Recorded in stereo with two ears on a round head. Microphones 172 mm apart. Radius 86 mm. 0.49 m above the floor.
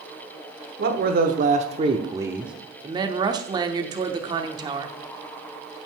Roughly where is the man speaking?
Right.